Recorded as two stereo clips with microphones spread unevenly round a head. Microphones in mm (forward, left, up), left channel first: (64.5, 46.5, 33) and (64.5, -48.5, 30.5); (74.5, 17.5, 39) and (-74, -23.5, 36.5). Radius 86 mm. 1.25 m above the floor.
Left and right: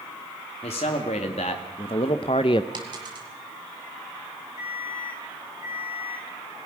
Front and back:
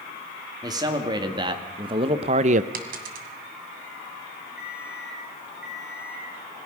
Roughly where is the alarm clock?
Left.